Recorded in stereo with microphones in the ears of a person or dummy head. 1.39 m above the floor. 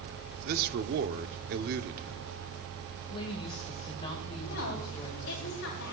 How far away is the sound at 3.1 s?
About 2 m.